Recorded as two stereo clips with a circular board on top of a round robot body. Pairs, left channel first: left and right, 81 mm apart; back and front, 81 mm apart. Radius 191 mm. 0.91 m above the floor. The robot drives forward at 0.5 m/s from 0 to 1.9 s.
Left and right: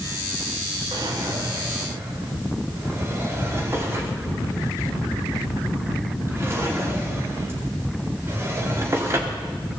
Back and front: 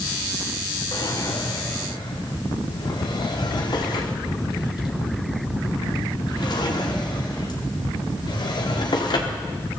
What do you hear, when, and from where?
0.9 s a drawer: 135° right, 1.0 m; by 9.6 s 150° right, 1.4 m